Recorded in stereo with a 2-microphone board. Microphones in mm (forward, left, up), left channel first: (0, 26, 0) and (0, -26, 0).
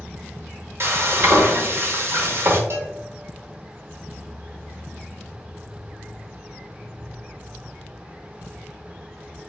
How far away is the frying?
About 0.7 m.